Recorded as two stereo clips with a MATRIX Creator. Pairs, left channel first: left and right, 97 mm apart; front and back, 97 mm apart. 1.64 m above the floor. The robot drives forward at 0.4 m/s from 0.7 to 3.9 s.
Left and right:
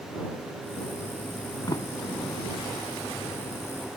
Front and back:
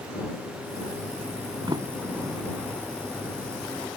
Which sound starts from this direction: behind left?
A sliding door, at 1.7 s.